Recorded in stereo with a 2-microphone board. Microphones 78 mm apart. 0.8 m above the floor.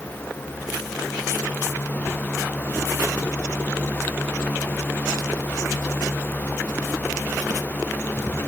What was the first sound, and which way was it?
Only background noise.